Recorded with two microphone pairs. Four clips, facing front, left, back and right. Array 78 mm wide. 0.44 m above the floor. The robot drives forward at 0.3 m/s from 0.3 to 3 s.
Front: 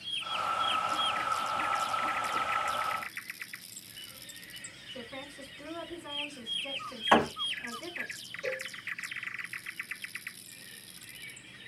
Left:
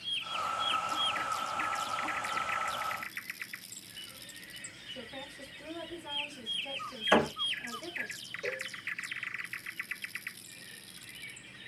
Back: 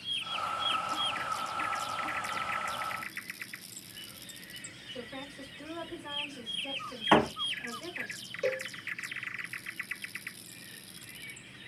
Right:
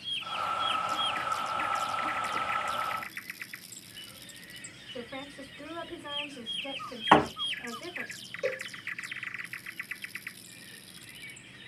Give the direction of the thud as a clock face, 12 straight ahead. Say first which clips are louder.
Right 5 dB, even; 3 o'clock.